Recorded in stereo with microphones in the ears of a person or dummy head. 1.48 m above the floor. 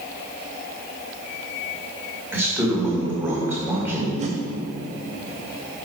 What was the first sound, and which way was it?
A man speaking, 20° right (ahead or behind).